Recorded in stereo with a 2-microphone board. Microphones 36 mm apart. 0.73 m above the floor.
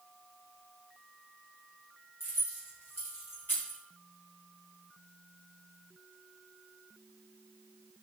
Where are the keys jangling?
80° left, 4 m; by 3.8 s 70° left (ahead or behind), 4.5 m.